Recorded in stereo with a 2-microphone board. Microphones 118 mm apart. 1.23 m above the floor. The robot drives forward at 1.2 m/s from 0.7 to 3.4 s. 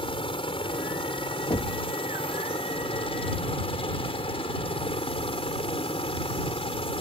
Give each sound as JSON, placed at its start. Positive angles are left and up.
{"t": 0.0, "sound": "a helicopter", "side_deg": 50}
{"t": 1.5, "sound": "knocking", "side_deg": 55}